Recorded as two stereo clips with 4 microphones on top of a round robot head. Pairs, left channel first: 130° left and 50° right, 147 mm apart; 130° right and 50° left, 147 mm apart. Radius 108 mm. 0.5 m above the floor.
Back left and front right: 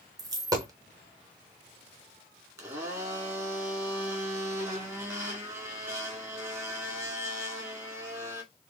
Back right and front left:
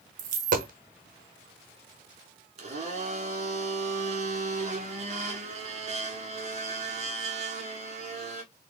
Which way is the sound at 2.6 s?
15° left.